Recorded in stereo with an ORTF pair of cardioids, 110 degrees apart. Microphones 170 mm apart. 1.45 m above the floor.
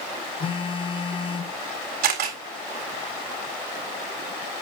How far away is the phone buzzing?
About 0.9 m.